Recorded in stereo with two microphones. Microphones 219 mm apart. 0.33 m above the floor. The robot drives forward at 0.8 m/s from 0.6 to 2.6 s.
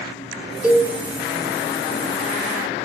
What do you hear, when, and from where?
0.6 s a cowbell: 5° right (ahead or behind), 1.1 m